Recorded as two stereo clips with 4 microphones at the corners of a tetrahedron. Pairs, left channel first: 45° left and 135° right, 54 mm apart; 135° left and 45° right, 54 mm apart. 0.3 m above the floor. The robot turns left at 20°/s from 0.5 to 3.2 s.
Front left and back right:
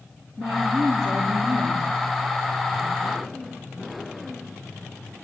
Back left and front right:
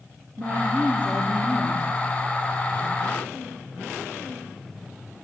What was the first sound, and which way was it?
A woman speaking, 100° right.